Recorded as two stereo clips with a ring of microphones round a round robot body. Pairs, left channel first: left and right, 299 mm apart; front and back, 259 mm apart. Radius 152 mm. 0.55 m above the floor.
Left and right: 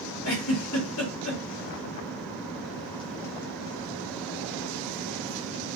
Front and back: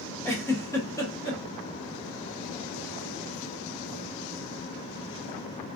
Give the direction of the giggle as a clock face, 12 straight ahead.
9 o'clock.